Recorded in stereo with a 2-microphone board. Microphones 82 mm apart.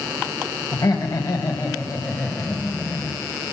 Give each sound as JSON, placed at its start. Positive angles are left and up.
{"t": 0.7, "sound": "laughter", "side_deg": 55, "distance_m": 2.5}